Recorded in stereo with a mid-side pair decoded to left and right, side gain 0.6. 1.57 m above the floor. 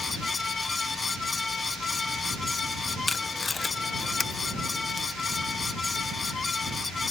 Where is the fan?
25° left.